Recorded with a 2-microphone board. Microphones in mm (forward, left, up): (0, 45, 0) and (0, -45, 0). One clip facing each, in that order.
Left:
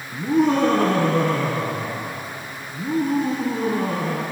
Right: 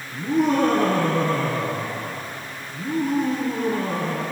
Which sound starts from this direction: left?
Laughter, at 0.1 s.